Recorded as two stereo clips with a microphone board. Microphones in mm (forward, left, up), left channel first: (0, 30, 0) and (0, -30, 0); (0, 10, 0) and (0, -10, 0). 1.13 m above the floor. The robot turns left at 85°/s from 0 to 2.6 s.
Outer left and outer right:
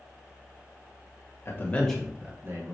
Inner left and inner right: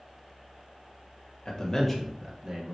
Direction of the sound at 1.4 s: 45° left.